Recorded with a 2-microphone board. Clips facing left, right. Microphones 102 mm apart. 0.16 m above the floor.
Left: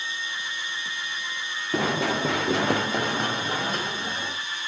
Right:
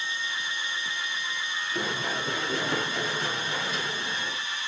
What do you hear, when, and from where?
1.7 s running footsteps: 85° left, 1.8 m; by 4.4 s 40° left (ahead or behind), 4 m